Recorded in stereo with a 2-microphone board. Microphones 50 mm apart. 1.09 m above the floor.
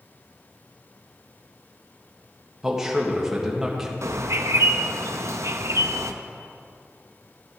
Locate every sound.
2.6 s a man speaking: 10° right (ahead or behind), 1.7 m
4.0 s a bird: 70° right (ahead or behind), 0.6 m